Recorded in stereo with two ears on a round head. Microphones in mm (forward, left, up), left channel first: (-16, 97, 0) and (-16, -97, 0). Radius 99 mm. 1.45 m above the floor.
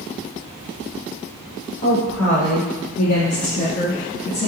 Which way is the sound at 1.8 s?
80° left.